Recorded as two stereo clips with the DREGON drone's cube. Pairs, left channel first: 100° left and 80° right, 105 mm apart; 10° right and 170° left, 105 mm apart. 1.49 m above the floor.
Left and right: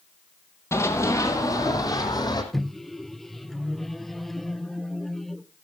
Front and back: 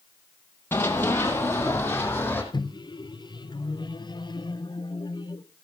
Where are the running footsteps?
50° left, 2 m; by 2.4 s 60° left, 3 m.